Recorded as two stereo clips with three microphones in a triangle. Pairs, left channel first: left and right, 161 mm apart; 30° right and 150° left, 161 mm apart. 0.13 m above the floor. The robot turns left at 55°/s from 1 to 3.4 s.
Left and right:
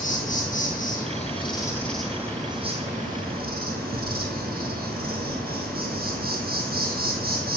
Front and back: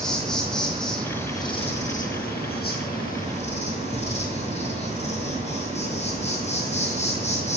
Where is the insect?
55° left, 1.8 m; by 7.6 s 75° right, 1.8 m.